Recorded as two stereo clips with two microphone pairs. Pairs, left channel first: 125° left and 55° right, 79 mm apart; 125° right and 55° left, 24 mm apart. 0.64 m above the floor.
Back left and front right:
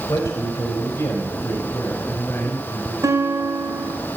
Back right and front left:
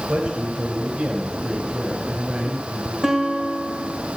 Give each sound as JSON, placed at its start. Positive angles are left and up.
{"t": 0.1, "sound": "a man speaking", "azimuth_deg": 75, "distance_m": 4.0}
{"t": 3.0, "sound": "a guitar", "azimuth_deg": -10, "distance_m": 3.0}